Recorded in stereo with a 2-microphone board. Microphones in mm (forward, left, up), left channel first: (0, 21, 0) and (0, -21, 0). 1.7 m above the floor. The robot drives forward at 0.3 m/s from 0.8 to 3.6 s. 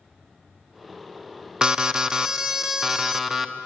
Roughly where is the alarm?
Centre.